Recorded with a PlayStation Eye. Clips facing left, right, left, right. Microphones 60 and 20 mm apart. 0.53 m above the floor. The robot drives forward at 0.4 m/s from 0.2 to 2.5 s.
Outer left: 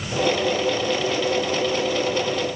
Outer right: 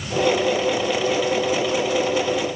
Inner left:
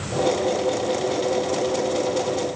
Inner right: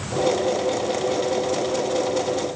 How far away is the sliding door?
I don't hear a sliding door.